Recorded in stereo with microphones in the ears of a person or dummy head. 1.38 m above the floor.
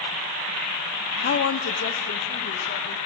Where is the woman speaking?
45° left (ahead or behind), 0.5 m; by 3.0 s 65° left (ahead or behind), 3 m.